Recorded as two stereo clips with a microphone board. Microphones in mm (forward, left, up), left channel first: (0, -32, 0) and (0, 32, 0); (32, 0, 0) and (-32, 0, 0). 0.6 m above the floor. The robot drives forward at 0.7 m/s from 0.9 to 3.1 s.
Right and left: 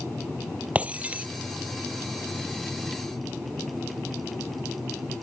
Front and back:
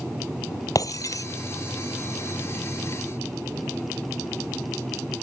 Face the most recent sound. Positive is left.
turn(degrees=30)